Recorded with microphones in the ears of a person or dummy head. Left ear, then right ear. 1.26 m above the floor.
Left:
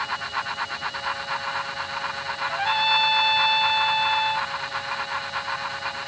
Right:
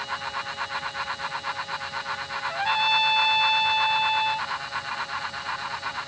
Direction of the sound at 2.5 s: Centre (ahead or behind).